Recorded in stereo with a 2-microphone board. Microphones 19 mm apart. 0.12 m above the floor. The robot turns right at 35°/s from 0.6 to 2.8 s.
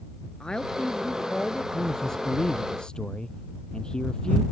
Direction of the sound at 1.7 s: 15° left.